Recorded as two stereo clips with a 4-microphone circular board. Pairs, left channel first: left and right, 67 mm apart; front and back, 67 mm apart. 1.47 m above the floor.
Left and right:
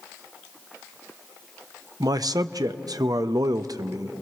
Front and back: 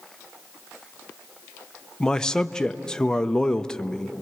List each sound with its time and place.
2.0 s a man speaking: 80° right, 0.7 m